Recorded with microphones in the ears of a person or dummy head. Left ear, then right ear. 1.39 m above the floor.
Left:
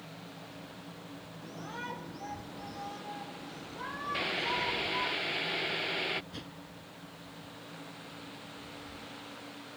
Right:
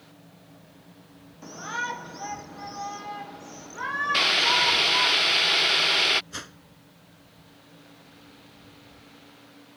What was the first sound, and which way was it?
A shout, 50° right (ahead or behind).